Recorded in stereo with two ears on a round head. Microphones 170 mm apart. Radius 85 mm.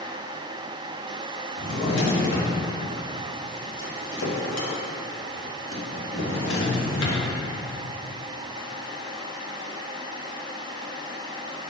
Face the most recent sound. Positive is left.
turn(degrees=70)  # may be behind; listen again after turning